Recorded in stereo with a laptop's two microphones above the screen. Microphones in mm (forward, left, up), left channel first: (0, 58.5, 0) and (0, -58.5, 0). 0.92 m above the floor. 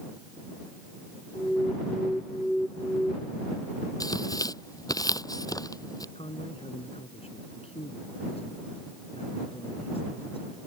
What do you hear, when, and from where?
1.4 s an alarm: 5° left (ahead or behind)
4.0 s tearing paper: 30° left (ahead or behind)
6.2 s a man speaking: 55° left (ahead or behind)